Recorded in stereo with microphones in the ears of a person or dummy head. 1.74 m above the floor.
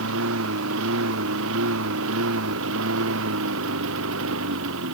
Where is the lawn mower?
75° right (ahead or behind); by 4.9 s 80° right.